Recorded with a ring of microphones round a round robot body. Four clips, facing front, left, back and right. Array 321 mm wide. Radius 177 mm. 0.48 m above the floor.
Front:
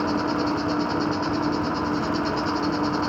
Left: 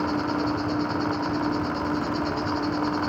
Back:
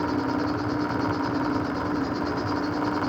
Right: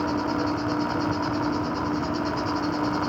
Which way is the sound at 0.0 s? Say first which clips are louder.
Even, front 2 dB; 5° right.